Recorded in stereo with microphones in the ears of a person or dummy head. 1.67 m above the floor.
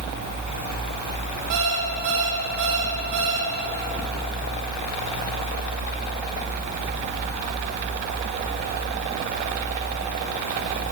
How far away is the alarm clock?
About 2.5 m.